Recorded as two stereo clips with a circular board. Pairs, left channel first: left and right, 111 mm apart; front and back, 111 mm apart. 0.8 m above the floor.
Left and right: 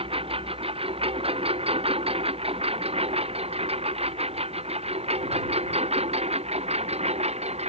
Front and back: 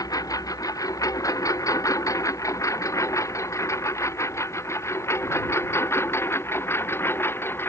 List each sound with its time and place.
0.0 s a lawn mower: 55° right; by 7.7 s 70° right